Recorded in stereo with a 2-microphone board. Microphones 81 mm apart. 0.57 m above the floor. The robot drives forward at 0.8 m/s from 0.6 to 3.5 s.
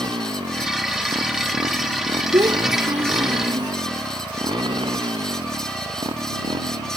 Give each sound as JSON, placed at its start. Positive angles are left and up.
{"t": 0.0, "sound": "a motorcycle", "side_deg": -70}
{"t": 2.3, "sound": "a child speaking", "side_deg": -65}